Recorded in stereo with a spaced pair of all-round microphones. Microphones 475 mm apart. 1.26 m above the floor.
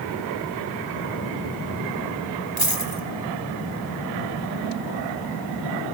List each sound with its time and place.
2.6 s a dropped coin: 50° right (ahead or behind), 2.5 m